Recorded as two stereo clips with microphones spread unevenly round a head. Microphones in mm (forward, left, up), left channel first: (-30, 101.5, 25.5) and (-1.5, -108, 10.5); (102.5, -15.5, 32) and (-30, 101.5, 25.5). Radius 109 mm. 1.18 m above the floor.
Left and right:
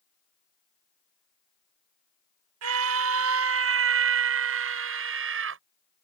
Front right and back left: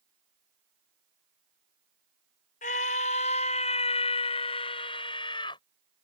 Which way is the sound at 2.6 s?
100° right.